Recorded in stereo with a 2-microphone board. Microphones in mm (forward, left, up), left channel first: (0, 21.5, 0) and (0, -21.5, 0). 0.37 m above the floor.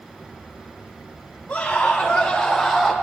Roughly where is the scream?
Left.